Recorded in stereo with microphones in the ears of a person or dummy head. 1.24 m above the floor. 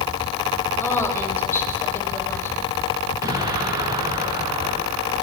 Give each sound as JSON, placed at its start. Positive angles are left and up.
{"t": 0.8, "sound": "a woman speaking", "side_deg": 15, "distance_m": 6.5}
{"t": 3.2, "sound": "an explosion", "side_deg": -20, "distance_m": 6.0}